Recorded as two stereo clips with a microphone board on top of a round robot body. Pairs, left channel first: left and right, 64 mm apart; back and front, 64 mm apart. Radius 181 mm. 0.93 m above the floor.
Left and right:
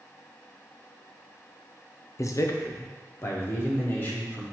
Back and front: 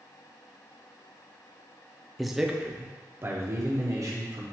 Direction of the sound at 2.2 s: 95° left.